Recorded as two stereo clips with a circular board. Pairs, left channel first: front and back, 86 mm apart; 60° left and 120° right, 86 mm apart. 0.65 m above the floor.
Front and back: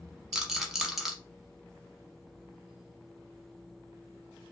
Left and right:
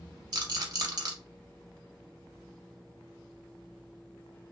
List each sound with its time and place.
0.3 s a rattle: 90° right, 0.9 m